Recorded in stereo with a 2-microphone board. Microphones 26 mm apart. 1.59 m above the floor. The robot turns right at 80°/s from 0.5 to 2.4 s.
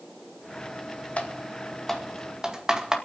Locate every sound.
1.2 s typing on a keyboard: 70° left (ahead or behind), 2 m; by 3.0 s 30° right (ahead or behind), 2 m